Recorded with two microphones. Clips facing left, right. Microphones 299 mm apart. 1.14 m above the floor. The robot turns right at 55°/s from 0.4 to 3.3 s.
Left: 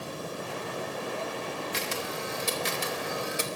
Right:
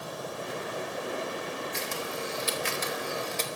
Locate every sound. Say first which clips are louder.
1.7 s a camera shutter: left 1 dB; 80° left, 1.0 m; by 3.5 s 10° left (ahead or behind), 1.0 m